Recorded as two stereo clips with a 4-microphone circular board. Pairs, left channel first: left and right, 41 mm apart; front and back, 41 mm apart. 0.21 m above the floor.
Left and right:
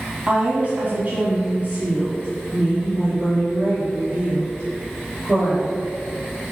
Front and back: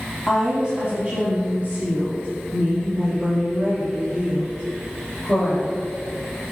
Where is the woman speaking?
110° right, 1.1 m; by 5.8 s 140° right, 4 m.